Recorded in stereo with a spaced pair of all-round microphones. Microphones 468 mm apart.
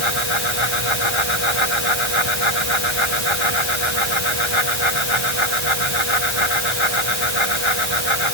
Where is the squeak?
I don't hear a squeak.